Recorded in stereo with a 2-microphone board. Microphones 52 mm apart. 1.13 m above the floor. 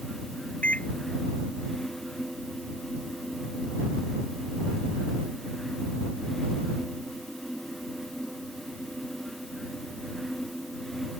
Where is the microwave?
30° left (ahead or behind).